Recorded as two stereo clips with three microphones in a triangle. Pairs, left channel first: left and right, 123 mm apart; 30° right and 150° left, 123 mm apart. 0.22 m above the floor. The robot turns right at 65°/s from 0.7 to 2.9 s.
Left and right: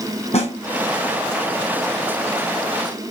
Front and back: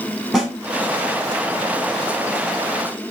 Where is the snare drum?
65° left, 1.3 m.